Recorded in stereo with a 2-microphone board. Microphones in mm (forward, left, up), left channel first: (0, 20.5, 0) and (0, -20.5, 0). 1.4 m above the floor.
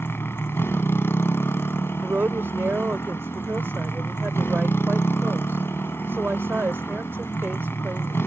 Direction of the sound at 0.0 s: 75° left (ahead or behind).